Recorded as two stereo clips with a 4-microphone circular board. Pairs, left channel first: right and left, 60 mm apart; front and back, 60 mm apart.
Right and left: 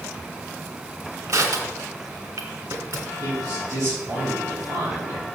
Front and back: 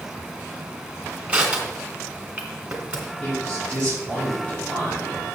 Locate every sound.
1.3 s crushing: 110° left, 1.9 m
3.2 s a man speaking: 65° left, 4.5 m